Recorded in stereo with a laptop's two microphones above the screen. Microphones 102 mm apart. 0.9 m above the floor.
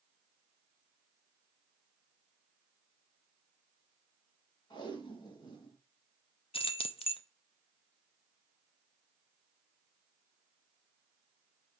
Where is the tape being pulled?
45° left (ahead or behind), 2 m.